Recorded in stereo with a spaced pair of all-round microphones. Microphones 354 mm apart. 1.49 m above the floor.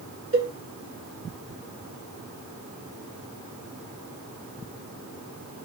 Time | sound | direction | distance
0.3 | a cowbell | 35° right (ahead or behind) | 1.5 m